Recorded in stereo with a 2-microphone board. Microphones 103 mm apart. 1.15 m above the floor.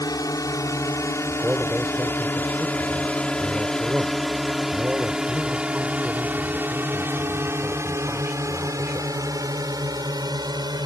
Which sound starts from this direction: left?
A drone, at 0.0 s.